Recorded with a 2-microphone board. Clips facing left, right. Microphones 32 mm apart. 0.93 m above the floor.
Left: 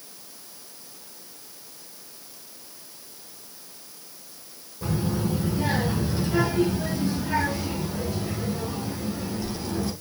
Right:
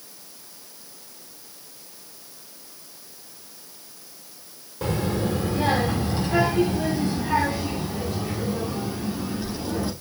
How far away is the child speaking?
About 1.8 m.